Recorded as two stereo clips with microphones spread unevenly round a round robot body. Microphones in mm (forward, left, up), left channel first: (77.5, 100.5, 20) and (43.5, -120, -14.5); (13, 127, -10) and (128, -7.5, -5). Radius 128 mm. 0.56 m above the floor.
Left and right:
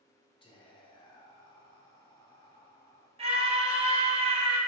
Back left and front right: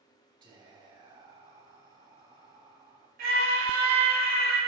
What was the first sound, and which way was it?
Whispering, 10° left.